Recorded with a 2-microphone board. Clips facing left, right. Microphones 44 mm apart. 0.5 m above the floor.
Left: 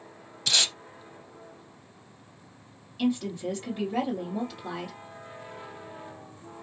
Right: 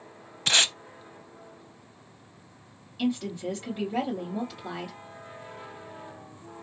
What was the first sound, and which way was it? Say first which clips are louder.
Tape being pulled: right 3 dB; 40° right (ahead or behind).